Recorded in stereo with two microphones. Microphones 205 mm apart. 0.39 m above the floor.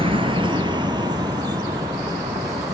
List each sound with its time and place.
0.0 s a vehicle: 25° right (ahead or behind); by 2.7 s 15° right (ahead or behind)